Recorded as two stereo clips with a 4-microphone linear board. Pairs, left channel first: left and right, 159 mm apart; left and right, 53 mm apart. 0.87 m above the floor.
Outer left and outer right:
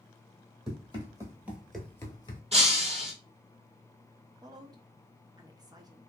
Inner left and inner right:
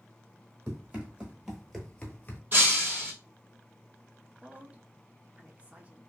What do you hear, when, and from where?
0.7 s running footsteps: 30° right (ahead or behind), 1.4 m; by 2.4 s 35° left (ahead or behind), 1.0 m
2.5 s breaking glass: 40° right (ahead or behind), 1.5 m
4.4 s a woman speaking: 25° right (ahead or behind), 0.5 m